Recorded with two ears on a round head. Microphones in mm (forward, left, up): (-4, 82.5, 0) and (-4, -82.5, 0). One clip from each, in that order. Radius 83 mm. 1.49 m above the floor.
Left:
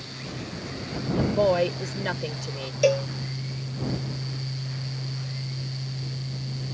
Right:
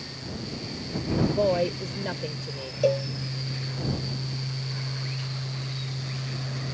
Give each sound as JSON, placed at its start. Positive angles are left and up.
{"t": 1.2, "sound": "a woman speaking", "side_deg": 40}
{"t": 2.8, "sound": "a cowbell", "side_deg": 60}